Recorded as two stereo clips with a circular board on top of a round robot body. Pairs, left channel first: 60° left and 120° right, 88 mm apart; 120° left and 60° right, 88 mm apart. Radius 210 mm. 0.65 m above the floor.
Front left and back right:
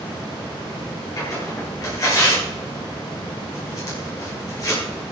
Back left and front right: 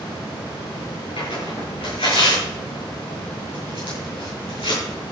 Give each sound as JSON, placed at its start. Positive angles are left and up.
{"t": 1.2, "sound": "tearing paper", "azimuth_deg": 110, "distance_m": 9.0}